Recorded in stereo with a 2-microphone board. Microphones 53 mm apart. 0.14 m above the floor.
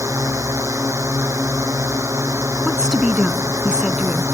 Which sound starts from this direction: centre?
A woman speaking, at 2.6 s.